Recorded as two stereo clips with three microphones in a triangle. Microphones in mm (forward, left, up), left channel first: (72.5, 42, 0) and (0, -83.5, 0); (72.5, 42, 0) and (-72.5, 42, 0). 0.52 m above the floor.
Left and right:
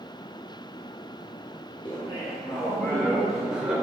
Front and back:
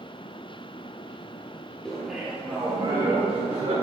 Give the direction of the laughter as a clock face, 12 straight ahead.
9 o'clock.